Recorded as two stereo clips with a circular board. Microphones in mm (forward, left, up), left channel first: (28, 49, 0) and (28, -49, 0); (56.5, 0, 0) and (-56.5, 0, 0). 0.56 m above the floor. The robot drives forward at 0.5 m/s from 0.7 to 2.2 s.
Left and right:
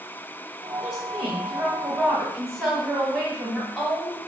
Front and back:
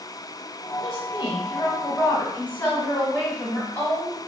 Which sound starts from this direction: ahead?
A woman speaking, at 0.8 s.